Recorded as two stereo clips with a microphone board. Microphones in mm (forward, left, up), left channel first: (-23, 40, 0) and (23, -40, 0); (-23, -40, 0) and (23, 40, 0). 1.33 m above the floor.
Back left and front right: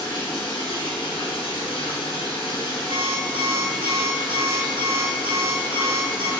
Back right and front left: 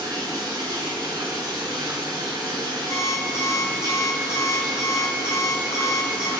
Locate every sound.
0.0 s running water: 100° left, 5.5 m
2.9 s an alarm clock: 65° right, 4 m